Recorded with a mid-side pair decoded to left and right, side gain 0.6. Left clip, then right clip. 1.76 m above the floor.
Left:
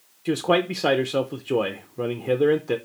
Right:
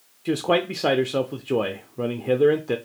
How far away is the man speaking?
About 0.6 m.